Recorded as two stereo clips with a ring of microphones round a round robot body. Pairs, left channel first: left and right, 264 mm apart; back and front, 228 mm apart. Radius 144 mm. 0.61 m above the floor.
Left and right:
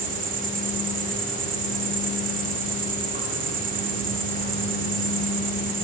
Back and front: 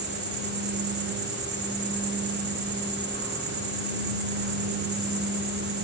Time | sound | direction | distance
0.0 | an insect | 35° right | 1.5 m